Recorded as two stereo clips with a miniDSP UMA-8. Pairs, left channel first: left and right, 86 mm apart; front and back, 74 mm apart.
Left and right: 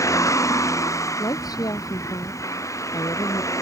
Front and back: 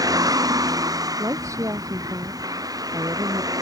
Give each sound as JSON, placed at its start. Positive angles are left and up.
{"t": 0.0, "sound": "a vehicle", "azimuth_deg": 145}
{"t": 1.2, "sound": "a woman speaking", "azimuth_deg": 135}